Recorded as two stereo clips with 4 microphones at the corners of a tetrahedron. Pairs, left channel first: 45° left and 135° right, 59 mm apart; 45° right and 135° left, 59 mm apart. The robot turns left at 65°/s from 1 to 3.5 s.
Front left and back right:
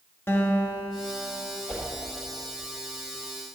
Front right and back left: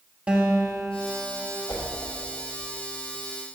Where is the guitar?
75° left, 1.7 m; by 1.6 s 40° left, 1.7 m.